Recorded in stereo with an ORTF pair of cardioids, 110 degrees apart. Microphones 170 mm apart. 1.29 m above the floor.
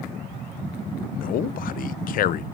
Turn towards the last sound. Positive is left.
turn(degrees=55)